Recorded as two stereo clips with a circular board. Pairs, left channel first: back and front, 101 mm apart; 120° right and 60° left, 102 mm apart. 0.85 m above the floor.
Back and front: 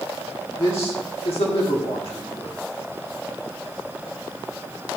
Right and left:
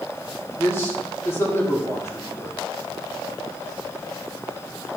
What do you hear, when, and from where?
0.6 s a man speaking: straight behind, 1.8 m